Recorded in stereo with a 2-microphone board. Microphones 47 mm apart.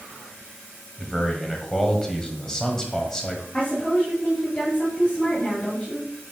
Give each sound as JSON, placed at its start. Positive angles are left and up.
{"t": 1.0, "sound": "a man speaking", "side_deg": 15, "distance_m": 1.3}
{"t": 3.5, "sound": "a woman speaking", "side_deg": 25, "distance_m": 2.5}